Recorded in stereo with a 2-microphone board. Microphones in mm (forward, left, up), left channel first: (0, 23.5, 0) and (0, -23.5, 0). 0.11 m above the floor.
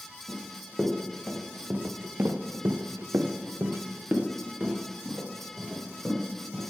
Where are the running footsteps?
15° right (ahead or behind), 1.8 m; by 6.6 s 20° right (ahead or behind), 3 m.